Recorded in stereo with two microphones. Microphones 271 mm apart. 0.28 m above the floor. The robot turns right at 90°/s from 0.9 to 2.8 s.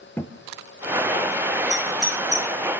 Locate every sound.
0.2 s a thud: 10° left (ahead or behind), 2.0 m
1.7 s a doorbell: 25° left (ahead or behind), 4 m; by 2.5 s 40° right (ahead or behind), 4 m